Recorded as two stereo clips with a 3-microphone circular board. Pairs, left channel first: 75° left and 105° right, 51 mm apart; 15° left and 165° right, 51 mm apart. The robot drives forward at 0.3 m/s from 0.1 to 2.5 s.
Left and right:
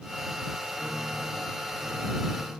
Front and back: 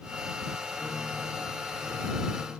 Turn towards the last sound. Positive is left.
turn(degrees=-15)